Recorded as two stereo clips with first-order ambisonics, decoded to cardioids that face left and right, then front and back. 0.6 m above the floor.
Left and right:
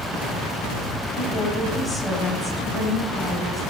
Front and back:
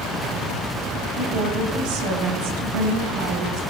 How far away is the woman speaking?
About 3 m.